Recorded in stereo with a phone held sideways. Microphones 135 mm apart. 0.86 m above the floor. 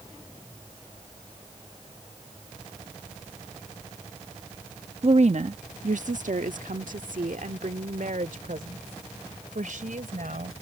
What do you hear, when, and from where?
5.0 s a woman speaking: 50° right (ahead or behind); by 10.6 s 85° right